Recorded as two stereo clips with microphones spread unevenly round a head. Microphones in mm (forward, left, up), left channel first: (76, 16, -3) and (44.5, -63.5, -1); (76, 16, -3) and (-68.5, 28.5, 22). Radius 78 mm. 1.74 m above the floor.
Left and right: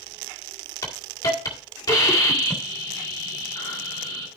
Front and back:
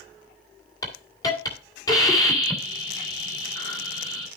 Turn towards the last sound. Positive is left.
turn(degrees=60)